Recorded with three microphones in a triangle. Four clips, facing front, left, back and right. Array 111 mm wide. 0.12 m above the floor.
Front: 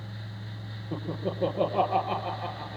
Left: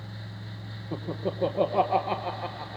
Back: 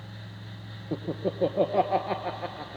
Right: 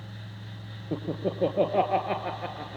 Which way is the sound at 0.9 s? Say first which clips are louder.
Right 2 dB, back 2 dB; 135° right.